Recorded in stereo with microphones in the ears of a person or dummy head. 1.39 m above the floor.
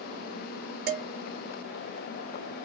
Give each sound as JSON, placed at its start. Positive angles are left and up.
{"t": 0.9, "sound": "dishes clattering", "side_deg": -55, "distance_m": 1.4}